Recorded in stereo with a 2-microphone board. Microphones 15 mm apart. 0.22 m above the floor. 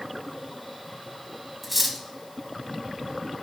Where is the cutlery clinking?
Centre (ahead or behind), 0.8 m.